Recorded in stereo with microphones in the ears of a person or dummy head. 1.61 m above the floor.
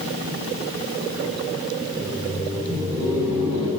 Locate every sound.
1.9 s laughter: 15° right (ahead or behind), 4 m